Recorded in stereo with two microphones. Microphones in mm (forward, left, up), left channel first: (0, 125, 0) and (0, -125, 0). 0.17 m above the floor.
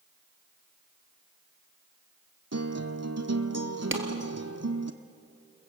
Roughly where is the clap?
Right.